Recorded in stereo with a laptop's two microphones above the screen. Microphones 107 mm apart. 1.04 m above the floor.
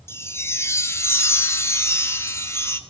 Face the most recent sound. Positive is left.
turn(degrees=25)  # may be behind; listen again after turning